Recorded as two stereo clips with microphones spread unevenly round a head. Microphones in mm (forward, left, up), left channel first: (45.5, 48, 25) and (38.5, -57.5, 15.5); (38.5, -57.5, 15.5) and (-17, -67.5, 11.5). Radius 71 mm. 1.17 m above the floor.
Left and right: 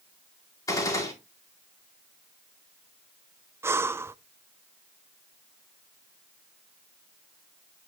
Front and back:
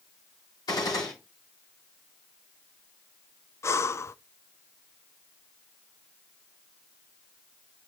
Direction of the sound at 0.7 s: 30° left.